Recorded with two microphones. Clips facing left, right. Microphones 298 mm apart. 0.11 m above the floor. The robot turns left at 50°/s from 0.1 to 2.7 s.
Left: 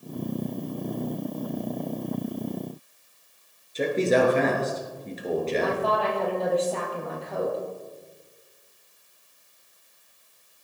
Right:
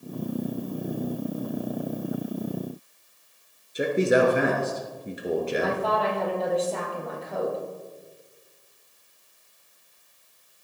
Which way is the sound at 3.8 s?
10° right (ahead or behind).